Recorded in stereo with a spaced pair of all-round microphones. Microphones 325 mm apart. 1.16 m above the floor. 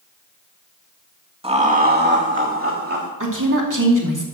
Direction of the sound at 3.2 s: 60° right (ahead or behind).